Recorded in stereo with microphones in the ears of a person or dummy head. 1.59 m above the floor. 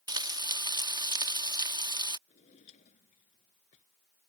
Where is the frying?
20° right (ahead or behind).